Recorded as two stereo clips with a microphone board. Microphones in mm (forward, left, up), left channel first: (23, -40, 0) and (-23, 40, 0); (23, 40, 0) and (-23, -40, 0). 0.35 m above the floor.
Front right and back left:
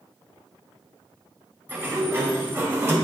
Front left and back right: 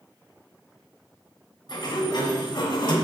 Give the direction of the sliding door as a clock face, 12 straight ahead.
10 o'clock.